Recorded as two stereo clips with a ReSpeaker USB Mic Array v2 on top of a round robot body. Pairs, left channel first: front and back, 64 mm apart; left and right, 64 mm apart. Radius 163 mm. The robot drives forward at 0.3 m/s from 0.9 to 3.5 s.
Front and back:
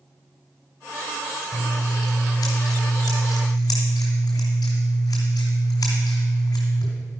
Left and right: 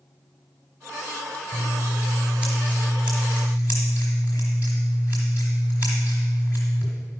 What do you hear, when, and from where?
1.5 s scissors: 10° right, 1.4 m; by 6.9 s 20° right, 1.0 m